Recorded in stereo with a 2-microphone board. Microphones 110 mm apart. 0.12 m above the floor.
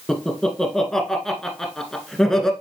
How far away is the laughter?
About 1.2 m.